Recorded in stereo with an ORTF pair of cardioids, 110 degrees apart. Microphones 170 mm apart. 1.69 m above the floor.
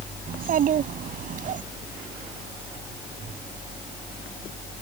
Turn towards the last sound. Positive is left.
turn(degrees=-50)